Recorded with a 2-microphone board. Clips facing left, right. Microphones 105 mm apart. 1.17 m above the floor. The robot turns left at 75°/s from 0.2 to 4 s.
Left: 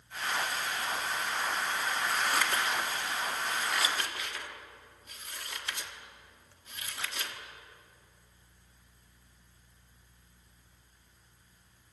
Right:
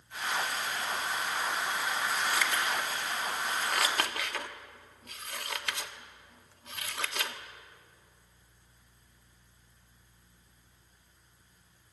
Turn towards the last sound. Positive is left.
turn(degrees=-70)  # may be behind; listen again after turning